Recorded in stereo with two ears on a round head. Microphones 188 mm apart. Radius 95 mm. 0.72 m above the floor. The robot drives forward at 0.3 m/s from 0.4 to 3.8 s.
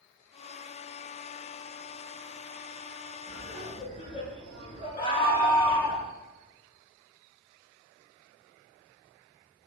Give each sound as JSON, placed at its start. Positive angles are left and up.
{"t": 3.3, "sound": "laughter", "side_deg": 40, "distance_m": 9.5}
{"t": 5.0, "sound": "a scream", "side_deg": 45, "distance_m": 1.5}